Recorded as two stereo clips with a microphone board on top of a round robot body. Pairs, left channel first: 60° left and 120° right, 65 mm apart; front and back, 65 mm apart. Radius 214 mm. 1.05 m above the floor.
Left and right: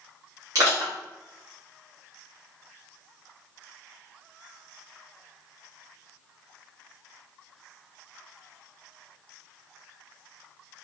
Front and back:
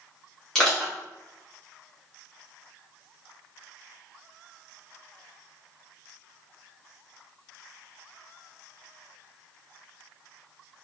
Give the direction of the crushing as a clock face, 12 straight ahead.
3 o'clock.